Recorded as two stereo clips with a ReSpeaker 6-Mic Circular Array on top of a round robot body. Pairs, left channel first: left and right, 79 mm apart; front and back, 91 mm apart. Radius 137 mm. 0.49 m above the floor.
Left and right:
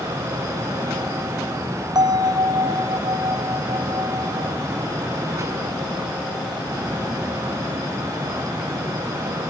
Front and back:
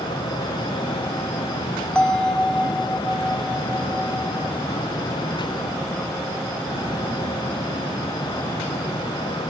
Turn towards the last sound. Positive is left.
turn(degrees=-80)